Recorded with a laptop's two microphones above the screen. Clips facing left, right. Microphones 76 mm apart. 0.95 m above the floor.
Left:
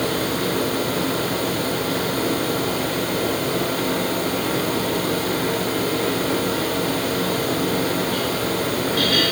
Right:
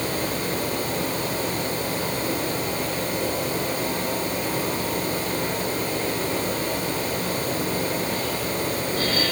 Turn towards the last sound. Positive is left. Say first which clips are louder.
# left 4 dB
turn(degrees=80)